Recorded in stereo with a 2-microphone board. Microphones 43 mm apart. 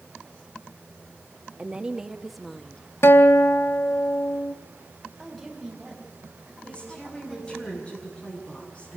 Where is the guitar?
80° left, 1.0 m.